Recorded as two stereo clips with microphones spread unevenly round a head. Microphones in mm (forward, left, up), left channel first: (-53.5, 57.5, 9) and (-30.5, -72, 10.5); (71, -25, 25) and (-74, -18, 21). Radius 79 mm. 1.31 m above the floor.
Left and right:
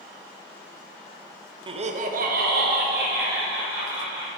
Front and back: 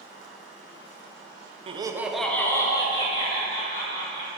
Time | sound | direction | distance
1.7 | laughter | 135° right | 0.7 m